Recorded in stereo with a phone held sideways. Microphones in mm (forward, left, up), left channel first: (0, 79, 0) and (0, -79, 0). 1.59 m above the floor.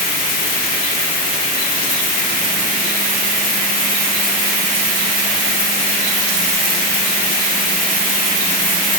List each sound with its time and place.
Only background noise.